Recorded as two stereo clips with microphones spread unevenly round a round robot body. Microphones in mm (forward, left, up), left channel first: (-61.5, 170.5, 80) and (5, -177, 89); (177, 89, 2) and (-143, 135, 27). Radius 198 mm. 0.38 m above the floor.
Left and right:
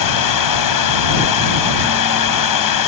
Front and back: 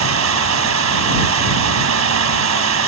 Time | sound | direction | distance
0.0 | running water | 130° left | ?